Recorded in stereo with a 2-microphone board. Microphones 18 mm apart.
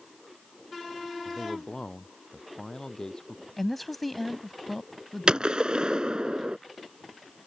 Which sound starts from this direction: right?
A gunshot, at 5.3 s.